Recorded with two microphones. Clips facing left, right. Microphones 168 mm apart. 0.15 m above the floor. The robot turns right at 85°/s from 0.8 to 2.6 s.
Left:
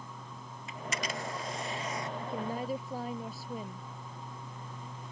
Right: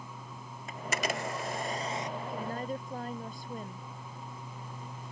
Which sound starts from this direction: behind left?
A woman speaking, at 2.2 s.